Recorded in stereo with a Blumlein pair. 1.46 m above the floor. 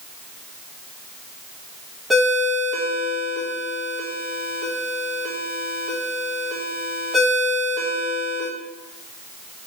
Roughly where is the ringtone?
Ahead.